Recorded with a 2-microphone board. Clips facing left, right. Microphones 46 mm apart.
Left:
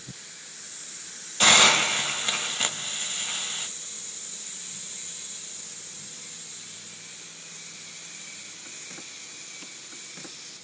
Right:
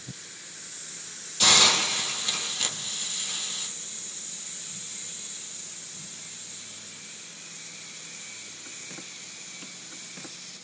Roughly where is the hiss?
Left.